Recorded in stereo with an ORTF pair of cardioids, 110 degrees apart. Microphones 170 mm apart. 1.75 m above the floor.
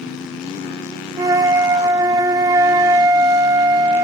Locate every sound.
1.2 s a flute: 20° right, 0.8 m